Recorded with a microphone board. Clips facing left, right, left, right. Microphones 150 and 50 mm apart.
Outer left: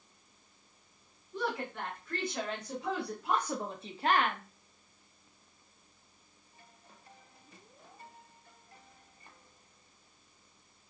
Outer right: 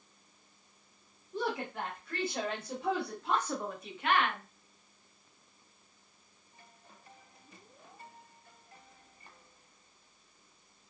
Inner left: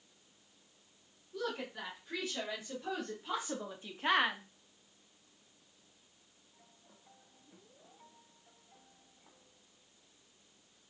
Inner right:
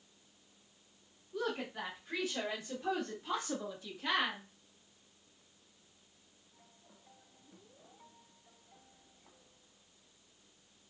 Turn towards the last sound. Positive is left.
turn(degrees=45)  # may be behind; listen again after turning